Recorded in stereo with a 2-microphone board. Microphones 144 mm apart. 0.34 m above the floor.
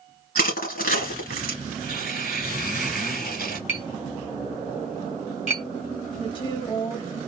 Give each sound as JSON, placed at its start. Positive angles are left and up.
{"t": 0.3, "sound": "crushing", "side_deg": 80, "distance_m": 2.5}
{"t": 1.7, "sound": "tearing paper", "side_deg": 85, "distance_m": 3.0}
{"t": 3.7, "sound": "tapping", "side_deg": 50, "distance_m": 2.5}
{"t": 6.2, "sound": "a woman speaking", "side_deg": 35, "distance_m": 1.1}